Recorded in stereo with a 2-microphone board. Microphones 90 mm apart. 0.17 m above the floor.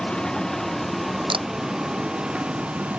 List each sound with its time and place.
0.0 s a vehicle: 10° left (ahead or behind); by 3.0 s 10° right (ahead or behind)
1.3 s a camera shutter: 75° right (ahead or behind)